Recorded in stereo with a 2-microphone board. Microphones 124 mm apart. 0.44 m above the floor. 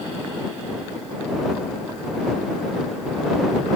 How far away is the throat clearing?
I don't hear throat clearing.